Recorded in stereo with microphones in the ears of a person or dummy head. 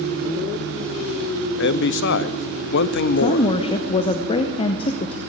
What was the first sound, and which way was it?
A man speaking, 55° left (ahead or behind).